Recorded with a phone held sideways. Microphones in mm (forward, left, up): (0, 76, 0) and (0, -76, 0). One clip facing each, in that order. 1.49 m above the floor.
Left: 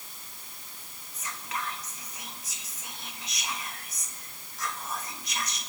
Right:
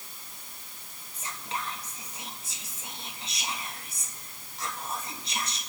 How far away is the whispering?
About 1.8 m.